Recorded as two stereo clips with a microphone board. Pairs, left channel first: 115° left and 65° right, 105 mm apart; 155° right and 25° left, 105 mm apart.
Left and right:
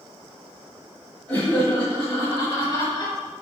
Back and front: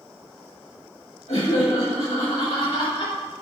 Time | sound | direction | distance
1.3 | laughter | 170° right | 4.5 m